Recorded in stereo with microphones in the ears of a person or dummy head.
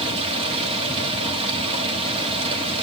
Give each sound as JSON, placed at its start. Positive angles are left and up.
{"t": 0.0, "sound": "running water", "side_deg": -30, "distance_m": 1.9}